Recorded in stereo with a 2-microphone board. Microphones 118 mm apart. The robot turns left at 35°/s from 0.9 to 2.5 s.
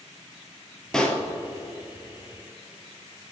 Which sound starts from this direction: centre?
A pop, at 0.9 s.